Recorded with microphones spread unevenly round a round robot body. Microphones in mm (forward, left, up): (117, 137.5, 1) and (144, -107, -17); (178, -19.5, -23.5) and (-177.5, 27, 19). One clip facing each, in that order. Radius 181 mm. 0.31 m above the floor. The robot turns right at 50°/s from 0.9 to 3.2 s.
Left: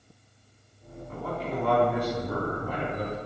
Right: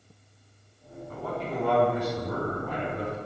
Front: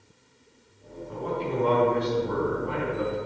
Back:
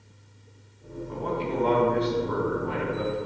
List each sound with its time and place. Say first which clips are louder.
1.1 s a man speaking: even, even; 170° right, 2.5 m; by 3.2 s 70° right, 2.5 m